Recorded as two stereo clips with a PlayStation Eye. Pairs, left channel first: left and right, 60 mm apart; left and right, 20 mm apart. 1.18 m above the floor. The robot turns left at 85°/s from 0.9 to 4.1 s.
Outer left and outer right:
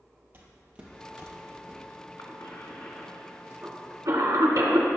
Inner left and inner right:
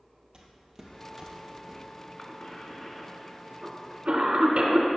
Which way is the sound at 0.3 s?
35° right (ahead or behind).